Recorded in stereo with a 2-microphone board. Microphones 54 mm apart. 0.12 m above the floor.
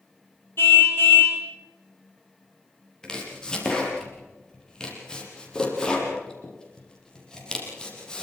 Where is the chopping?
15° left (ahead or behind), 5.5 m.